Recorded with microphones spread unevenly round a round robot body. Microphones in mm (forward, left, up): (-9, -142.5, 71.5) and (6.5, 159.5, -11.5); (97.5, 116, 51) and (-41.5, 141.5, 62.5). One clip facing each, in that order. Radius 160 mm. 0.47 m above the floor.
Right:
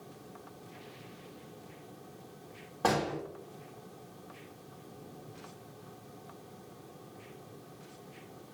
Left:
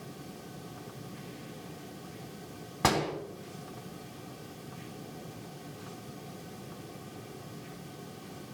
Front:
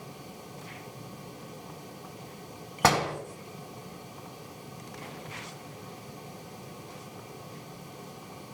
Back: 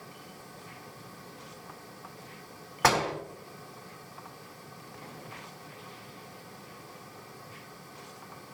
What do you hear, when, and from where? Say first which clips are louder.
2.8 s a door slam: left 1 dB, front 1 dB; 50° left, 3 m